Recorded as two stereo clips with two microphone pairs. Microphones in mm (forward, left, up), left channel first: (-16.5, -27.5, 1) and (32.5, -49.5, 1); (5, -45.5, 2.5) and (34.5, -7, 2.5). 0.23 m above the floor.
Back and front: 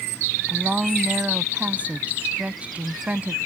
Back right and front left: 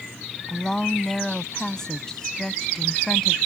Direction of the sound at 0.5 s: 60° right.